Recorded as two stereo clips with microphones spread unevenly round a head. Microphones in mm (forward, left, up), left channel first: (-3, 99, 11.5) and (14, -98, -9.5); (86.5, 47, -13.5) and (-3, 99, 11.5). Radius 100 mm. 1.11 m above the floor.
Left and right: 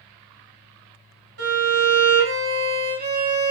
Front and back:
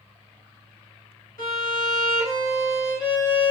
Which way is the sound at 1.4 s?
95° right.